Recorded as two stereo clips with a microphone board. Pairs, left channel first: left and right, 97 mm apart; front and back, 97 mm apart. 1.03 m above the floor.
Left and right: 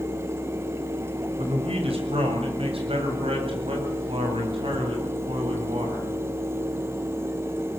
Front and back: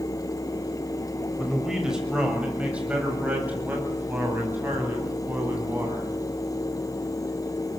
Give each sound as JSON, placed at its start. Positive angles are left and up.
{"t": 1.4, "sound": "a man speaking", "azimuth_deg": -95, "distance_m": 6.5}